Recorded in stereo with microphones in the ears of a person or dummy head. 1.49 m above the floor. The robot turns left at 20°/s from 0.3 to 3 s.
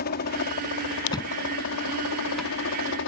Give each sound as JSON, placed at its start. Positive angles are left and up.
{"t": 0.0, "sound": "a helicopter", "azimuth_deg": 125}
{"t": 1.1, "sound": "a thud", "side_deg": 20}